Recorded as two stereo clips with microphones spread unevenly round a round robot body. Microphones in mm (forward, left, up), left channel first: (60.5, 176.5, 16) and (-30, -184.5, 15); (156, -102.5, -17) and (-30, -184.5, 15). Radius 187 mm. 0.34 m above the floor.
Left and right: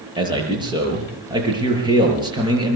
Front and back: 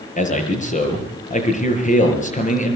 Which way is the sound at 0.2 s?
25° right.